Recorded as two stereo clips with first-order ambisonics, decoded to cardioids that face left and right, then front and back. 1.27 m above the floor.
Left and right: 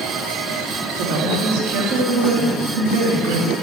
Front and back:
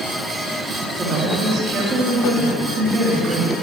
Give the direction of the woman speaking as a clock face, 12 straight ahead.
4 o'clock.